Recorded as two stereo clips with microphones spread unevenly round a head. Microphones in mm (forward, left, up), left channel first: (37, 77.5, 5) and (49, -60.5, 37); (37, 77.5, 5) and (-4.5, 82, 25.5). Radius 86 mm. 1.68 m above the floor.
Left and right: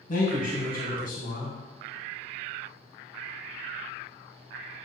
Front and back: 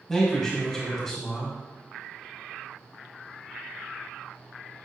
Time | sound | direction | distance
0.1 | a man speaking | 75° left | 1.8 m